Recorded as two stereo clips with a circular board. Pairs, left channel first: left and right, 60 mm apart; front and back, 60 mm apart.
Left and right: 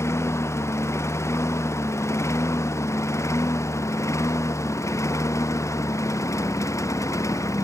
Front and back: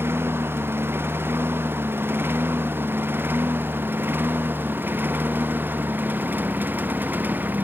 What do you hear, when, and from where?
0.0 s a lawn mower: 130° left; by 7.7 s 120° left